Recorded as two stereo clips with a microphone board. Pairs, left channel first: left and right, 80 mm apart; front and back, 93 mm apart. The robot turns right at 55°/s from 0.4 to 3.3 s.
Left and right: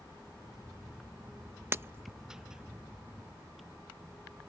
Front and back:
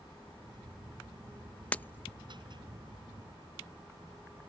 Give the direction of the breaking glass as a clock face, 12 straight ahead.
2 o'clock.